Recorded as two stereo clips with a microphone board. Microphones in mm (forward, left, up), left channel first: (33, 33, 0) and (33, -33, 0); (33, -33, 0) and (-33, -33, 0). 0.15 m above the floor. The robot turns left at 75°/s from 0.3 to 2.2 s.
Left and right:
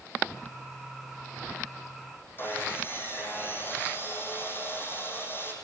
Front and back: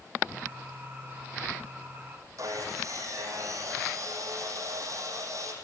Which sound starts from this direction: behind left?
Sawing, at 2.4 s.